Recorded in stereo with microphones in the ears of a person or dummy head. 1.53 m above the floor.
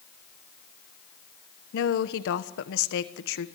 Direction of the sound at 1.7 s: 65° left (ahead or behind).